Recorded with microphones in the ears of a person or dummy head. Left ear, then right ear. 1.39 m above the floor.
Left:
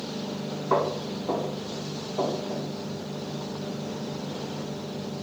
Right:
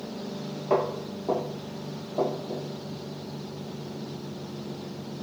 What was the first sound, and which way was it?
Footsteps, 40° right (ahead or behind).